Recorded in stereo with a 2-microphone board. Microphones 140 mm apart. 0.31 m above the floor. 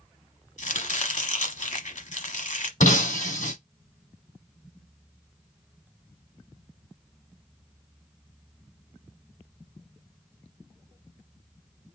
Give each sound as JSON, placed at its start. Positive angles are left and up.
{"t": 0.6, "sound": "chopping", "side_deg": 65, "distance_m": 0.9}
{"t": 2.8, "sound": "breaking glass", "side_deg": 65, "distance_m": 2.0}